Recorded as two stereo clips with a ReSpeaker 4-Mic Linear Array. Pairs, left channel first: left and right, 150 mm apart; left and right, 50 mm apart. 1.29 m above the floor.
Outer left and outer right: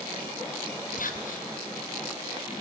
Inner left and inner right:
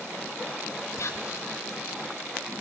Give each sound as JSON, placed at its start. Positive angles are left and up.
{"t": 1.0, "sound": "whispering", "side_deg": 60, "distance_m": 0.7}